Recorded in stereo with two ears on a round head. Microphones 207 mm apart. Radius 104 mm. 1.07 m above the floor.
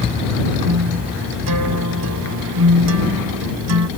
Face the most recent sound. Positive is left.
turn(degrees=-85)